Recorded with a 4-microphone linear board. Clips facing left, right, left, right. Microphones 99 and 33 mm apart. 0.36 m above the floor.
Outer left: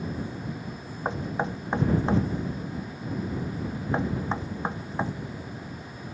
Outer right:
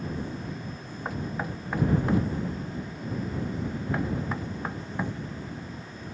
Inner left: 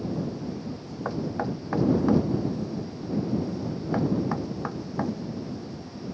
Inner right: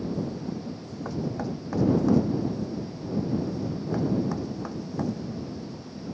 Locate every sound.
1.1 s knocking: 25° left (ahead or behind)